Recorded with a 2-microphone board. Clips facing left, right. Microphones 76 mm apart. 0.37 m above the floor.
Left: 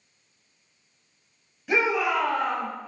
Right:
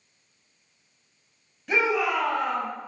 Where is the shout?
5° left (ahead or behind), 2.5 m; by 2.7 s 15° right (ahead or behind), 4 m.